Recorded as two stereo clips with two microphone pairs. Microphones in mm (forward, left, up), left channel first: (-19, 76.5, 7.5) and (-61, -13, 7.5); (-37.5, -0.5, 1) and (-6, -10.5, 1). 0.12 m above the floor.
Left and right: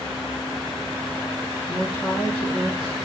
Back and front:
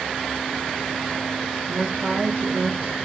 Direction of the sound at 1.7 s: 20° left.